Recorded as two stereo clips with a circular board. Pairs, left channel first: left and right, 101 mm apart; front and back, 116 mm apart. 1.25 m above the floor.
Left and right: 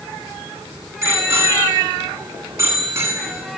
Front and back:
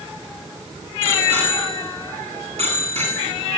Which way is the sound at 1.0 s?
155° right.